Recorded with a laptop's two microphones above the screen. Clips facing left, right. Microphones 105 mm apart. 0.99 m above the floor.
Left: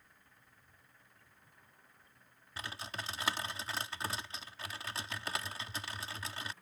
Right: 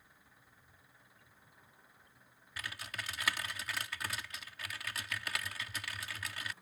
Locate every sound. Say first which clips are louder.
0.0 s an engine running: right 1 dB; 5° right (ahead or behind)
2.6 s typing on a keyboard: left 2 dB; 30° left (ahead or behind)